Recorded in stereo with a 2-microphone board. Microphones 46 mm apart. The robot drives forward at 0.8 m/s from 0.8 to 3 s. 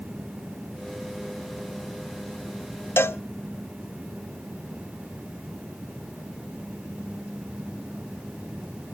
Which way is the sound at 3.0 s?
55° left (ahead or behind).